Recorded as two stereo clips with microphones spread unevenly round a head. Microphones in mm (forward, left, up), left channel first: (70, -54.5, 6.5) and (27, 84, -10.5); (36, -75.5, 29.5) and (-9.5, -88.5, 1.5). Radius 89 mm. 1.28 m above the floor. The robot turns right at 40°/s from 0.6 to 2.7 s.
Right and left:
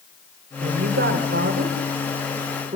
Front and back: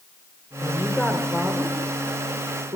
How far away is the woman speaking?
About 4 m.